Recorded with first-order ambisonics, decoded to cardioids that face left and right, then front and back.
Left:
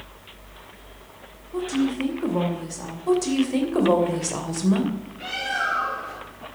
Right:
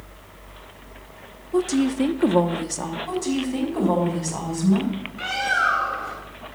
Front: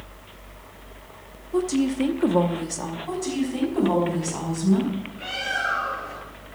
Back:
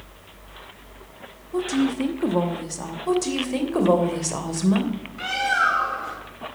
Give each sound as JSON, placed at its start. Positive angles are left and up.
{"t": 1.5, "sound": "a woman speaking", "azimuth_deg": -80, "distance_m": 0.9}
{"t": 3.1, "sound": "a woman speaking", "azimuth_deg": 150, "distance_m": 2.5}
{"t": 5.2, "sound": "a bird", "azimuth_deg": -155, "distance_m": 5.5}